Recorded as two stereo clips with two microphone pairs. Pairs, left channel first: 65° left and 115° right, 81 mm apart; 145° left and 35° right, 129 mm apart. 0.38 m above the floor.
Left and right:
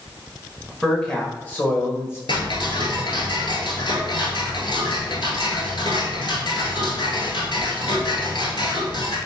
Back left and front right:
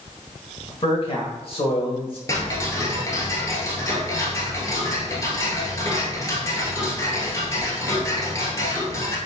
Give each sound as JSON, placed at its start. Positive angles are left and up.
{"t": 0.7, "sound": "a man speaking", "azimuth_deg": 150, "distance_m": 1.3}
{"t": 2.3, "sound": "ticking", "azimuth_deg": 80, "distance_m": 1.1}